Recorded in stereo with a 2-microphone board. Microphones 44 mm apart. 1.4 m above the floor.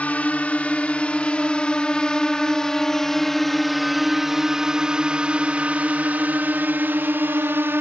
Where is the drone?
40° left (ahead or behind); by 7.8 s 55° right (ahead or behind).